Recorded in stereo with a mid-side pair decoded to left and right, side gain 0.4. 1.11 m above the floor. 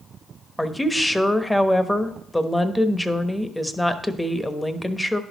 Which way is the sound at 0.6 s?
10° left.